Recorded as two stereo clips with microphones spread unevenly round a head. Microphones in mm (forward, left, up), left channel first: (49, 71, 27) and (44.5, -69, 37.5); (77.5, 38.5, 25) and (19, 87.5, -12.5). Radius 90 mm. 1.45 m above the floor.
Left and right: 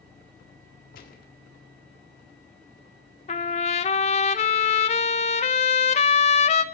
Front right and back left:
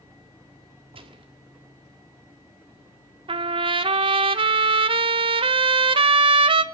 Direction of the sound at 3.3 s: 135° left.